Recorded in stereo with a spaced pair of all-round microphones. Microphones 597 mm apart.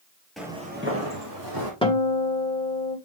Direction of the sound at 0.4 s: Centre (ahead or behind).